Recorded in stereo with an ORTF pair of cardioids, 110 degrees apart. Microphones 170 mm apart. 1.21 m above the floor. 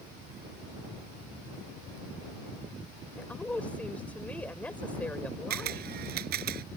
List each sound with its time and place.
3.2 s a woman speaking: 10° left
5.5 s a camera shutter: 70° right